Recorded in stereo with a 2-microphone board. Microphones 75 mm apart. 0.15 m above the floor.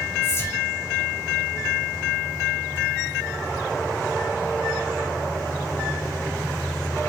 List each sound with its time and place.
0.2 s whispering: 30° left (ahead or behind), 1.2 m